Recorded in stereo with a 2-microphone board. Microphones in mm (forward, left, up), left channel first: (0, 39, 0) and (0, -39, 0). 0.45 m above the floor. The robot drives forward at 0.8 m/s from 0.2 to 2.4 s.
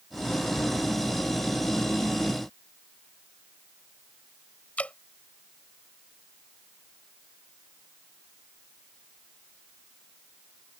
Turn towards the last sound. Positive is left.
turn(degrees=20)  # may be behind; listen again after turning